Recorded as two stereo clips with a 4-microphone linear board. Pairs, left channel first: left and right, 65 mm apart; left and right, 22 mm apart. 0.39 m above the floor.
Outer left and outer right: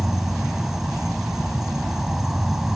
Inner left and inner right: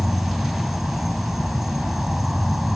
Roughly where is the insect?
Centre.